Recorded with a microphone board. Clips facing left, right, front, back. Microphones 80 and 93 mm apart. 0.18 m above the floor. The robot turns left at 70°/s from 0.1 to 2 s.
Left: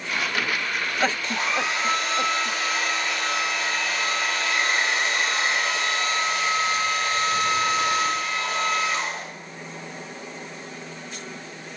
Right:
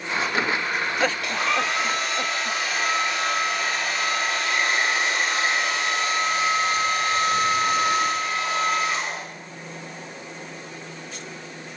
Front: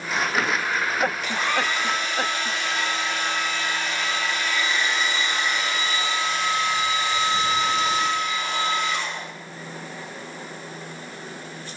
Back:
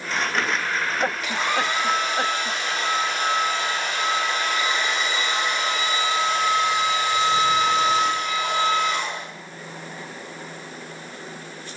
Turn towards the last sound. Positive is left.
turn(degrees=-150)